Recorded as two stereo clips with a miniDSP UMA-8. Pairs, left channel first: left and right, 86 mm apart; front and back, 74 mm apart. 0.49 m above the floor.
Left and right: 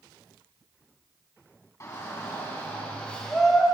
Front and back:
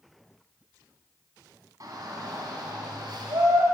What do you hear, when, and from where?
1.8 s a shout: 140° left, 3.5 m; by 3.6 s straight behind, 2.0 m